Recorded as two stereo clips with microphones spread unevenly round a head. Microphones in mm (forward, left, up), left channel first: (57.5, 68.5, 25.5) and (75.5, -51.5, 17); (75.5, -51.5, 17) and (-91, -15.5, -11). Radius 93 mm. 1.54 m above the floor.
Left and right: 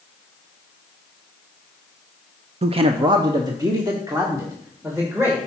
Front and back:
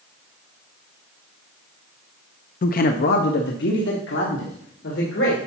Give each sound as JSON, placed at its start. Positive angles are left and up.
{"t": 2.6, "sound": "a man speaking", "azimuth_deg": -50, "distance_m": 0.6}